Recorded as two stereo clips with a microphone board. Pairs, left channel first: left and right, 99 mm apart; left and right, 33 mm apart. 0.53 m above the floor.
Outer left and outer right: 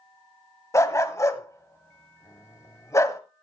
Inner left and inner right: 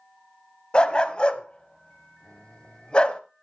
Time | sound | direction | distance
0.7 | a dog barking | 30° left (ahead or behind) | 1.2 m